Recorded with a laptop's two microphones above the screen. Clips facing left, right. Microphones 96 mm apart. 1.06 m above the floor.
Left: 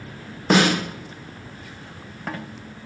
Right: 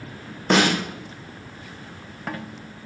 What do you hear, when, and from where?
0.5 s a snare drum: 5° left (ahead or behind), 0.9 m